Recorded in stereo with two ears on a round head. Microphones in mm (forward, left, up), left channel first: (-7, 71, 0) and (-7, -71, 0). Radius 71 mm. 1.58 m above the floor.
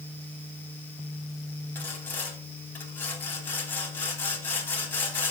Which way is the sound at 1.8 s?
10° left (ahead or behind).